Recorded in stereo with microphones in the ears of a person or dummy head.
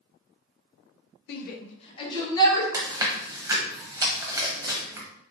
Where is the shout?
60° left (ahead or behind), 0.6 m; by 2.6 s 15° left (ahead or behind), 1.7 m.